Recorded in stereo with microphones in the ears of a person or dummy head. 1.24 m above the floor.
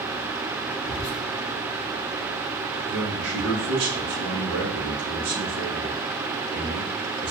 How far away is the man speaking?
About 0.9 m.